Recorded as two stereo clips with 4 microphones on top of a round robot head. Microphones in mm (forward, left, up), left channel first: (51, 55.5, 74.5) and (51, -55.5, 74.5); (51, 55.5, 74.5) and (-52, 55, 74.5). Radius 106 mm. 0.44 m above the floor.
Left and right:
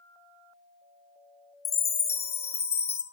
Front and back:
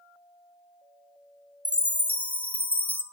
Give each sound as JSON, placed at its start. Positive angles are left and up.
{"t": 1.6, "sound": "a chime", "azimuth_deg": 75, "distance_m": 0.9}